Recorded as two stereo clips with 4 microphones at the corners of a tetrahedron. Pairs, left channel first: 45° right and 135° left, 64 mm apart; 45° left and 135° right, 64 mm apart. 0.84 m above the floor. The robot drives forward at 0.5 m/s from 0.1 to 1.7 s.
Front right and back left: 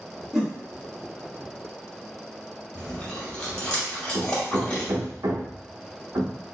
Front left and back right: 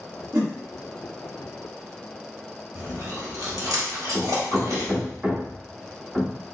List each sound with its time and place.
0.3 s a whoosh: 145° right, 2 m
2.8 s chewing: 125° right, 2.0 m
4.1 s hammering: 150° left, 0.8 m